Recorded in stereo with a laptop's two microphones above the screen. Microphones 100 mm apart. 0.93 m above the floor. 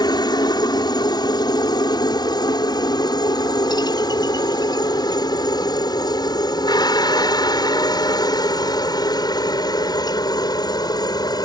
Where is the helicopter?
45° left (ahead or behind); by 11.5 s 40° left (ahead or behind).